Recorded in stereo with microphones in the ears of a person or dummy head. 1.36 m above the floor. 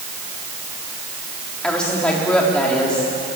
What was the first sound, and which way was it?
A woman speaking, 5° left (ahead or behind).